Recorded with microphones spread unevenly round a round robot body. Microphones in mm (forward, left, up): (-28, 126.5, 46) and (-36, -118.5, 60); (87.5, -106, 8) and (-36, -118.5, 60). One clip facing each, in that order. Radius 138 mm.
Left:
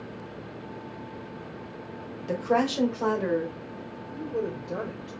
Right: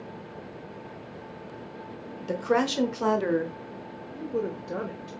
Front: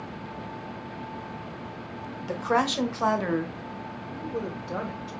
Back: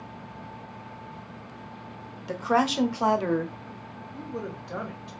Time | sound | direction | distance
2.3 | a woman speaking | 20° right | 1.0 m
4.2 | a woman speaking | 15° right | 1.0 m